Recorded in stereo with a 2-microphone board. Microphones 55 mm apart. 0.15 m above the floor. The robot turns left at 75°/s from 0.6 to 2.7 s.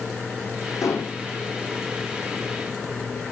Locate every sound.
0.8 s dishes clattering: 80° left, 5.5 m; by 1.2 s 65° left (ahead or behind), 5.5 m